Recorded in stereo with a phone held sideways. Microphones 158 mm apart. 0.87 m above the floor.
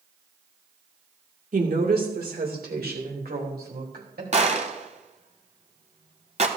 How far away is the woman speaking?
About 2 m.